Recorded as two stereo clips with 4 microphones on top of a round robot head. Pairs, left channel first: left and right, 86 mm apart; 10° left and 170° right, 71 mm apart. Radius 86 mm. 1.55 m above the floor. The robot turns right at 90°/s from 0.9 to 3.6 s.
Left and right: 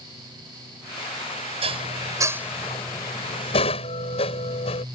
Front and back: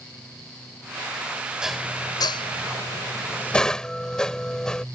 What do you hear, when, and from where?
1.6 s dishes clattering: 90° right; by 4.8 s 90° left